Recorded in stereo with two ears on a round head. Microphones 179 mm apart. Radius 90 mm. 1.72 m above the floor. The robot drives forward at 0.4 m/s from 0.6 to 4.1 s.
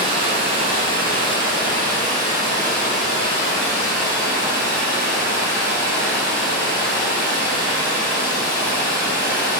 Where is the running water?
30° right (ahead or behind), 1.4 m; by 9.6 s 15° right (ahead or behind), 2.5 m.